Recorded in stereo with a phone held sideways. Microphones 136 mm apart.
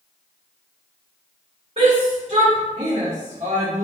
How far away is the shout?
About 3 m.